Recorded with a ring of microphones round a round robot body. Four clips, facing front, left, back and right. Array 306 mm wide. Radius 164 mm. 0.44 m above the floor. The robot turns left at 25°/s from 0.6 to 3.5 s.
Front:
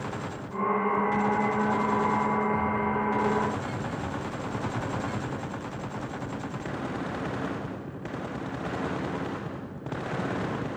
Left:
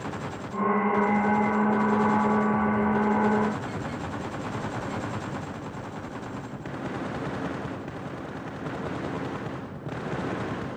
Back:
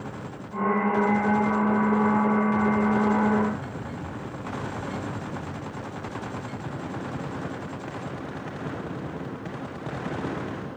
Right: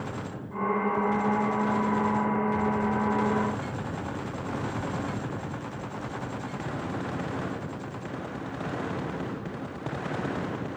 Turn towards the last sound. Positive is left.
No sound to turn to.